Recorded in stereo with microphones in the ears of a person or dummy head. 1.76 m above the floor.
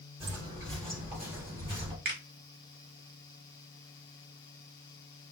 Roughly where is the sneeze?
No sneeze in this recording.